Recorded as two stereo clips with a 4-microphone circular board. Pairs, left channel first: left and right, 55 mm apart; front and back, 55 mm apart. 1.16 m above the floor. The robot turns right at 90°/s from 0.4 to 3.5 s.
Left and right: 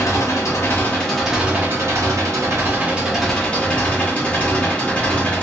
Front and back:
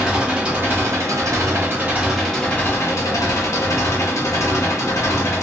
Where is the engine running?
110° left, 0.8 m; by 5.4 s 30° left, 0.8 m.